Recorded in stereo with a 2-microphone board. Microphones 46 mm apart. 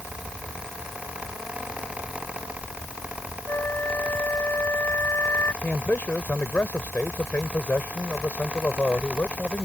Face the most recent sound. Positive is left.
turn(degrees=40)  # may be behind; listen again after turning